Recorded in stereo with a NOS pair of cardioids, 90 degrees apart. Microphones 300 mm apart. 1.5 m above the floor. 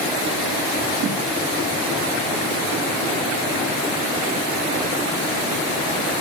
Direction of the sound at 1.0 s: 40° right.